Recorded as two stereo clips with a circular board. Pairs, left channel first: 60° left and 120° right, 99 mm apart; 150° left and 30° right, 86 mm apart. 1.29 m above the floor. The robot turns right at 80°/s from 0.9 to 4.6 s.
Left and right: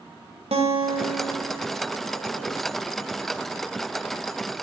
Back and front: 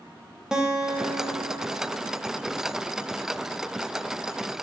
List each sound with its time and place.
0.5 s a guitar: 115° right, 1.1 m; by 2.6 s 20° left, 1.1 m